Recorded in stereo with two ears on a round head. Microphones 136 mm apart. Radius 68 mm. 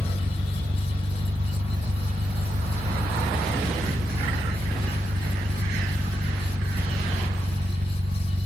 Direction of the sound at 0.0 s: 65° right (ahead or behind).